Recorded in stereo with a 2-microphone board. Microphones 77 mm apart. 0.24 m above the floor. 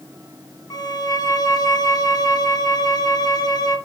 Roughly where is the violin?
Left.